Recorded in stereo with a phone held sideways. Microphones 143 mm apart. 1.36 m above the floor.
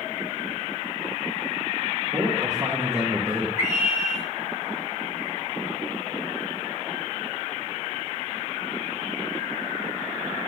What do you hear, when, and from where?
2.1 s a man speaking: 25° right (ahead or behind), 1.7 m; by 3.5 s 15° right (ahead or behind), 1.1 m
3.6 s a scream: 60° left (ahead or behind), 1.9 m